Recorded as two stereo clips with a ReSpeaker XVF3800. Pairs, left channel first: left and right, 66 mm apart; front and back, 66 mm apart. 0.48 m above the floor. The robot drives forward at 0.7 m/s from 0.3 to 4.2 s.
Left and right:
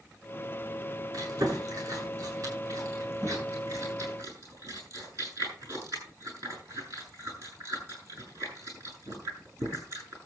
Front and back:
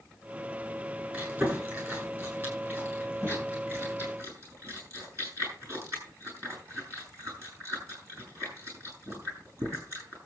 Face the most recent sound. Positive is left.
turn(degrees=-135)